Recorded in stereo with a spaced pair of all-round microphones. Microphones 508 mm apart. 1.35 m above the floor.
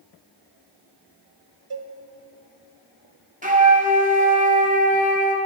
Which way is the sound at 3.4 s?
15° right (ahead or behind).